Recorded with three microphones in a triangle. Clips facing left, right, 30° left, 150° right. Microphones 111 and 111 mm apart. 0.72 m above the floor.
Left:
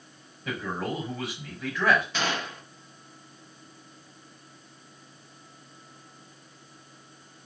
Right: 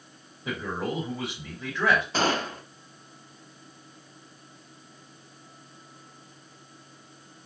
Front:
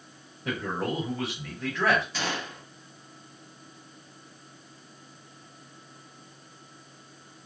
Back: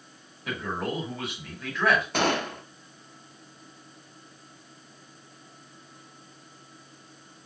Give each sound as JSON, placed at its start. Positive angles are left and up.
{"t": 0.5, "sound": "a man speaking", "azimuth_deg": -30, "distance_m": 4.0}
{"t": 2.1, "sound": "a gunshot", "azimuth_deg": -135, "distance_m": 0.5}